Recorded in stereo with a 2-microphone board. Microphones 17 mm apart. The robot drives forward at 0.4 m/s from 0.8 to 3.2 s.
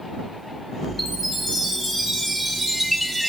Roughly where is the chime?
Centre.